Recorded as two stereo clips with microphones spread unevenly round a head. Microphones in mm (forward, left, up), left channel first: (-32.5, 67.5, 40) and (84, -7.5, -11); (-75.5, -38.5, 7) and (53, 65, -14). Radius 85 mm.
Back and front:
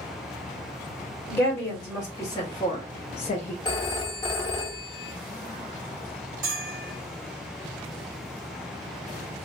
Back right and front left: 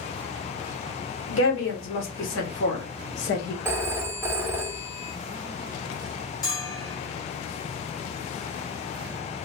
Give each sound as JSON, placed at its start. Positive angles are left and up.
{"t": 1.3, "sound": "a woman speaking", "azimuth_deg": -130, "distance_m": 2.0}
{"t": 3.6, "sound": "a phone ringing", "azimuth_deg": 120, "distance_m": 0.9}
{"t": 6.4, "sound": "a bell", "azimuth_deg": -85, "distance_m": 2.0}